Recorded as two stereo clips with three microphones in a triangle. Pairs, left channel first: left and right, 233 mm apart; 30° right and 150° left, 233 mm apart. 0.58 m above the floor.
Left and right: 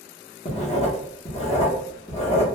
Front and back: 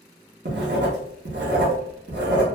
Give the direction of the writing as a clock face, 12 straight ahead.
7 o'clock.